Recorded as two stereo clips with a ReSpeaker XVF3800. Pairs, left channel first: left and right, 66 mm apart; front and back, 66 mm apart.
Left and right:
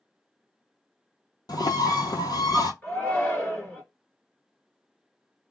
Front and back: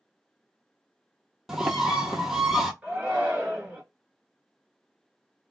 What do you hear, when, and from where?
1.5 s a bird: 95° left, 0.7 m
2.8 s a shout: 125° left, 1.6 m